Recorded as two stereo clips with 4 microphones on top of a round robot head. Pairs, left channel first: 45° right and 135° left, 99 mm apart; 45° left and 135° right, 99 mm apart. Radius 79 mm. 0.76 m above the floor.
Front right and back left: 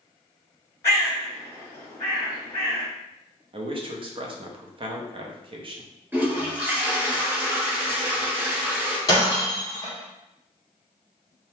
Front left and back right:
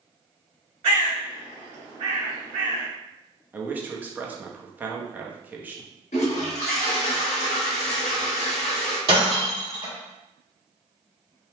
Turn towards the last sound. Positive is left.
turn(degrees=-100)